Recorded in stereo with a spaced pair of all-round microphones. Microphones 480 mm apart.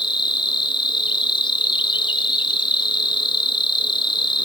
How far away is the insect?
About 1.0 m.